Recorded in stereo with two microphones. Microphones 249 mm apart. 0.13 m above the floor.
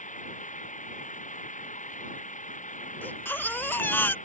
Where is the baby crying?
10° left (ahead or behind).